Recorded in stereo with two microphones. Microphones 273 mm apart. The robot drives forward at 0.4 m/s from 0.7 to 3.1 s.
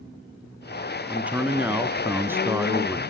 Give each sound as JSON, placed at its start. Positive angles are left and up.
{"t": 1.1, "sound": "a man speaking", "side_deg": -5, "distance_m": 0.8}